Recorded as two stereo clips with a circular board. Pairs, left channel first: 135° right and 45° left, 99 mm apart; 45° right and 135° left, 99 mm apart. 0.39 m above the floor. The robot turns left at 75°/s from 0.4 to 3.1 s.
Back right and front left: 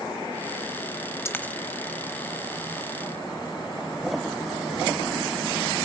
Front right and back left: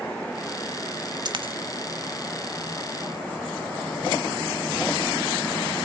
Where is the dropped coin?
165° left, 1.0 m; by 1.5 s 145° left, 1.0 m.